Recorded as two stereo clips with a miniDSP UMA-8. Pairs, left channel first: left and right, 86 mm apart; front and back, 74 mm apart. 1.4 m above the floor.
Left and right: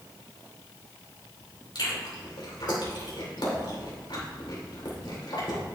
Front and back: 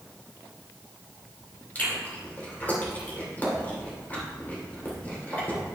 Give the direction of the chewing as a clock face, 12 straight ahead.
10 o'clock.